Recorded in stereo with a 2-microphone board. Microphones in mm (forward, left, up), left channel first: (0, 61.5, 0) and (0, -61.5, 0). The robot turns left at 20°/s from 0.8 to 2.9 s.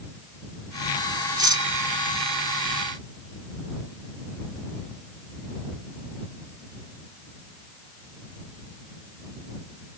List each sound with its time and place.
1.4 s cutlery clinking: 35° right (ahead or behind)